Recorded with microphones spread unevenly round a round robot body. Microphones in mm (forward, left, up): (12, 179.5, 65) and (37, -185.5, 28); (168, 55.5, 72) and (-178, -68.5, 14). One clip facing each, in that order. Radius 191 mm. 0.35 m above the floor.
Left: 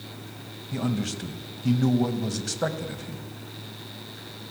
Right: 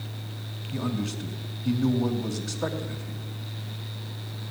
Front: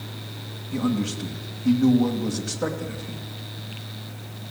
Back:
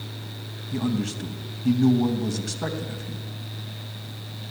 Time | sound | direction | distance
0.7 | a man speaking | 125° left | 3 m